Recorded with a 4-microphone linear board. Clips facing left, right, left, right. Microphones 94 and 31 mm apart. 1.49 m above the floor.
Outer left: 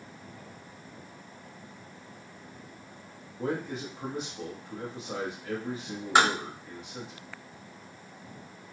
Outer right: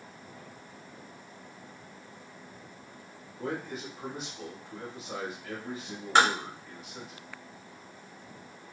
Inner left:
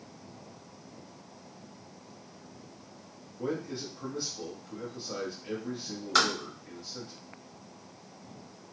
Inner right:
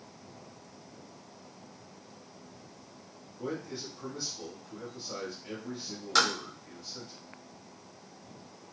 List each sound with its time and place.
3.4 s a man speaking: 20° left (ahead or behind), 0.9 m
6.2 s tapping: 10° left (ahead or behind), 1.5 m